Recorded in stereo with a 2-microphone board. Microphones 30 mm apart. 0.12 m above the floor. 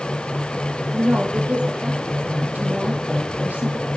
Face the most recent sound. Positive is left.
turn(degrees=-60)  # may be behind; listen again after turning